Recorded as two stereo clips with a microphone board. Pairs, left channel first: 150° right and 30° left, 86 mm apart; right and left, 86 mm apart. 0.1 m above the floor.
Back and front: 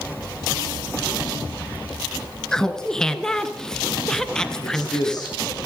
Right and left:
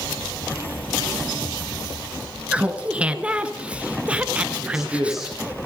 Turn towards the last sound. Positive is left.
turn(degrees=175)